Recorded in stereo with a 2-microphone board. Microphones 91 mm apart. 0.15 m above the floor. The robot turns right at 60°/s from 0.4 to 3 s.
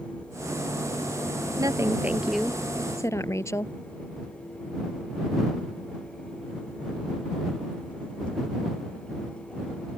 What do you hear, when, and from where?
1.6 s a woman speaking: 50° right; by 3.7 s 35° left